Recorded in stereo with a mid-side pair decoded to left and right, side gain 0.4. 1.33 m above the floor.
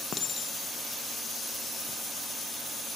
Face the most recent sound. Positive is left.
turn(degrees=60)